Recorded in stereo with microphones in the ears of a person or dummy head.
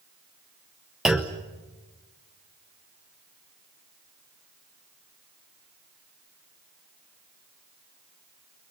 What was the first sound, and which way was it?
A clunk, 5° right (ahead or behind).